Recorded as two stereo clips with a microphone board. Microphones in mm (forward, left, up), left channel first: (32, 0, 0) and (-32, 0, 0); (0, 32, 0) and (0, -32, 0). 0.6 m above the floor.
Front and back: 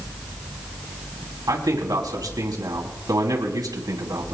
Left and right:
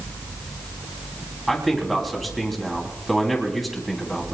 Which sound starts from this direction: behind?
A man speaking, at 1.5 s.